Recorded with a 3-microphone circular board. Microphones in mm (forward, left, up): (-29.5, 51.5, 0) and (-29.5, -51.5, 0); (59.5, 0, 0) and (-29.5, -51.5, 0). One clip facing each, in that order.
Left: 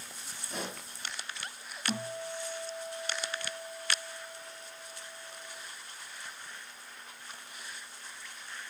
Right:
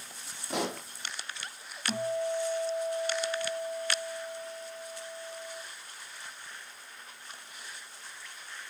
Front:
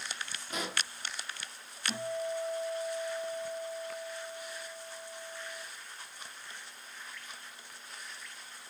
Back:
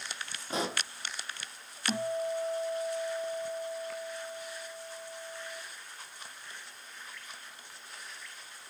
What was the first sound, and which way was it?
A pop, 90° right.